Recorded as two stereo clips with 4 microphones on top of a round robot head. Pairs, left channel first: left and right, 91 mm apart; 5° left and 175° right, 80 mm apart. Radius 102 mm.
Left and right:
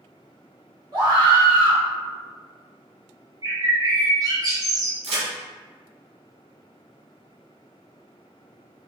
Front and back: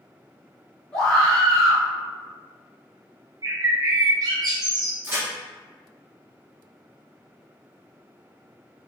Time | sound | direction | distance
0.9 | a scream | 70° right | 1.7 m
3.4 | a bird | 135° right | 0.9 m
5.0 | a crack | 105° right | 0.9 m